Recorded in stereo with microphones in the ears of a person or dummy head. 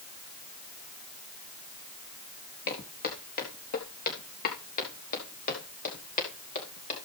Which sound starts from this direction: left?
Footsteps, at 2.7 s.